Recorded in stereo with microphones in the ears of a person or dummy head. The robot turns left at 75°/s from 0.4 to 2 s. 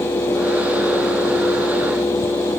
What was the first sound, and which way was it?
Only background noise.